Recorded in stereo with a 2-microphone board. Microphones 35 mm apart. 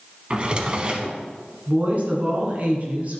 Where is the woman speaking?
50° right (ahead or behind), 1.9 m.